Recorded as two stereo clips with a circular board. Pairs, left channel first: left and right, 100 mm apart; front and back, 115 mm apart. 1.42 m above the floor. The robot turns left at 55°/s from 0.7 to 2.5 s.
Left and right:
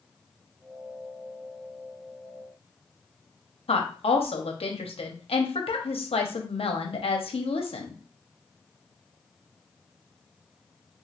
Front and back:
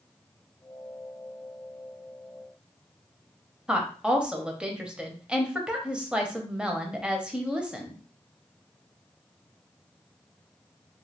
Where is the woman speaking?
100° left, 0.7 m.